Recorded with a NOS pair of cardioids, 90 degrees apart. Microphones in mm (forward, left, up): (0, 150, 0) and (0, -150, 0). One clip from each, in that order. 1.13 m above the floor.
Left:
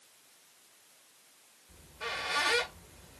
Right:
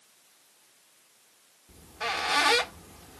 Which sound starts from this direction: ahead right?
A squeak, at 1.7 s.